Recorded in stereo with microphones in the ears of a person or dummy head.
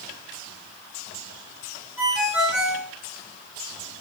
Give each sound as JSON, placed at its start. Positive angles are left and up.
{"t": 2.0, "sound": "a ringtone", "side_deg": -10, "distance_m": 4.0}